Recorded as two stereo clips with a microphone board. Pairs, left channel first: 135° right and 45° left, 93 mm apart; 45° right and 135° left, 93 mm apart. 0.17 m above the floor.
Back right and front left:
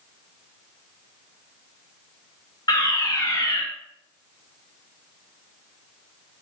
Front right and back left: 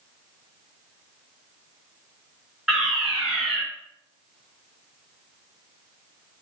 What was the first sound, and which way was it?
A fire alarm, 140° right.